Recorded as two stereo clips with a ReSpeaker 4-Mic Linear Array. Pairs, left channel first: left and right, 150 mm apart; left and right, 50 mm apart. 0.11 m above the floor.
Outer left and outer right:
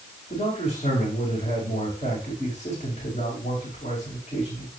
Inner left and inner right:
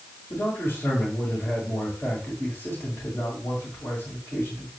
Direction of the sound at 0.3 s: 45° left (ahead or behind).